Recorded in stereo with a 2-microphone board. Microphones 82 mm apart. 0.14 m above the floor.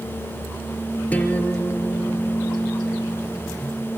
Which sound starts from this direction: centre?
A guitar, at 1.1 s.